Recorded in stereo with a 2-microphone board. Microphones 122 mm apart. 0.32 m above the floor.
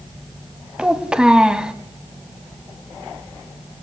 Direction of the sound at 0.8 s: 10° right (ahead or behind).